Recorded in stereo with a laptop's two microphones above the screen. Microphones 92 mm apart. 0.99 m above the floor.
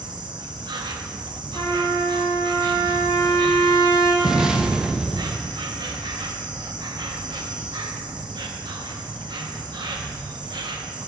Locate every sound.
0.0 s an insect: 50° right (ahead or behind), 0.8 m
1.6 s a trumpet: 50° left (ahead or behind), 3 m
4.2 s an explosion: 5° right (ahead or behind), 0.5 m